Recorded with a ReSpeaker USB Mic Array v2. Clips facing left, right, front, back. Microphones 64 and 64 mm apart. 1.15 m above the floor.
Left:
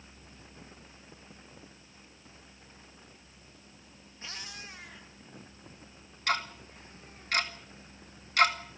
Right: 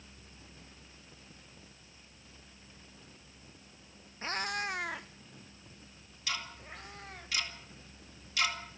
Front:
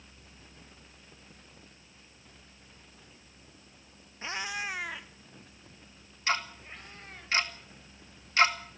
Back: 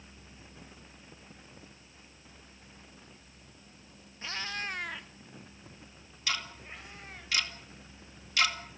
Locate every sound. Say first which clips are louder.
4.2 s a cat meowing: right 11 dB, front 2 dB; 60° right, 0.5 m; by 7.3 s 95° right, 3.5 m
6.3 s ticking: left 8 dB, front 5 dB; 55° left, 2 m